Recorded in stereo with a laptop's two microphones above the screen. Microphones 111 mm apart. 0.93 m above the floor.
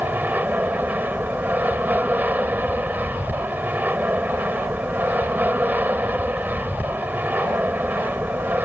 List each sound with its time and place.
0.0 s an aircraft: 15° right (ahead or behind)